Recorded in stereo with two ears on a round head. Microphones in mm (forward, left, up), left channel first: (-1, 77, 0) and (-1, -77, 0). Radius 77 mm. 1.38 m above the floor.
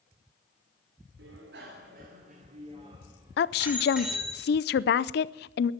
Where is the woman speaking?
65° left (ahead or behind), 0.5 m.